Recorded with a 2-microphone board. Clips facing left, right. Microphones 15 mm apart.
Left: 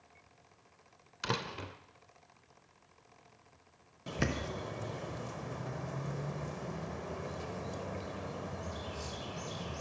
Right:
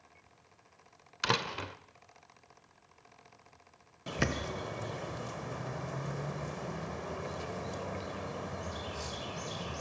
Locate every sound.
1.2 s a door slam: 30° right (ahead or behind), 0.6 m
4.1 s a bird: 20° right (ahead or behind), 0.9 m